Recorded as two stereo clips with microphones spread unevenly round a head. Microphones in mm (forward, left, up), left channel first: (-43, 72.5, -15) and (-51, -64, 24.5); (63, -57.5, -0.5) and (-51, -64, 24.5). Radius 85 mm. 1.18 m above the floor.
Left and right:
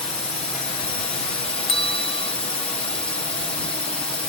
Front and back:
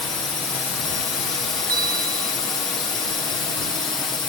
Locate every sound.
0.0 s a drone: 60° left
1.7 s a bell: 140° left